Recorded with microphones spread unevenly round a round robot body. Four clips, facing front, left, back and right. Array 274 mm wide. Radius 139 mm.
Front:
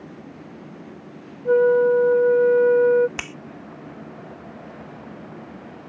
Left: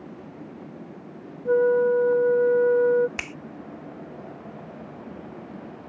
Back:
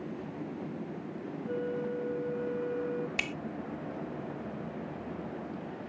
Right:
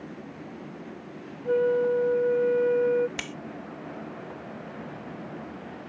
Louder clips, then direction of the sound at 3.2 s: Even, front 2 dB; 55° left.